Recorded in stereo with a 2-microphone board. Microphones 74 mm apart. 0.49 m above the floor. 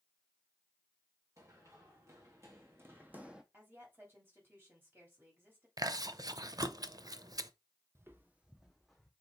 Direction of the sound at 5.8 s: 55° right (ahead or behind).